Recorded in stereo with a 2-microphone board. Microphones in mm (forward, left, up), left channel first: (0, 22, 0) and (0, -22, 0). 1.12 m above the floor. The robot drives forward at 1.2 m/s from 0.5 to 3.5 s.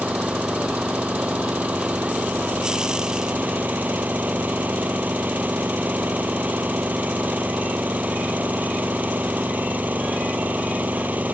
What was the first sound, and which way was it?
An engine running, 30° right (ahead or behind).